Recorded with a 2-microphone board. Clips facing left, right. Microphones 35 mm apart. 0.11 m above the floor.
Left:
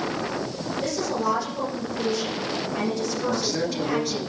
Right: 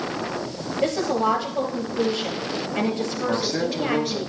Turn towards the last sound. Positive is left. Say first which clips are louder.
# right 3 dB
turn(degrees=-25)  # may be behind; listen again after turning